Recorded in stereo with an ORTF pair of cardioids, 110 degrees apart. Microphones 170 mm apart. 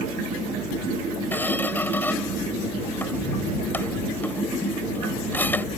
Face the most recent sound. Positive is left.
turn(degrees=10)